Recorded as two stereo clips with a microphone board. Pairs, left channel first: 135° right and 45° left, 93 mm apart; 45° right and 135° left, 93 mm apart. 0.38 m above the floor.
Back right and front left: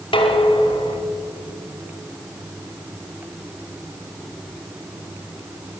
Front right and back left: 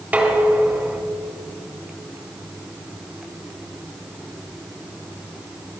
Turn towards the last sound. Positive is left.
turn(degrees=-150)